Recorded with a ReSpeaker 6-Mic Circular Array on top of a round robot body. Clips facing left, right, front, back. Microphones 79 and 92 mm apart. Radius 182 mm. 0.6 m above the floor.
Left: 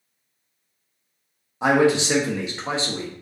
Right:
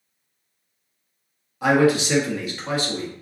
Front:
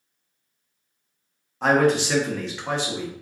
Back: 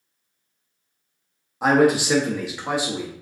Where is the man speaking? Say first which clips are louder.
Even, back 2 dB; 115° left, 1.0 m.